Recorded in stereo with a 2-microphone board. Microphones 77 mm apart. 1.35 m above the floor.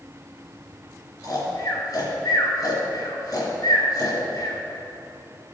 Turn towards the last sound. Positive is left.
turn(degrees=45)  # may be behind; listen again after turning